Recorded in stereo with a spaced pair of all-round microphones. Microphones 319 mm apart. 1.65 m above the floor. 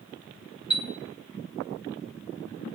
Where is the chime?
50° left (ahead or behind), 1.1 m.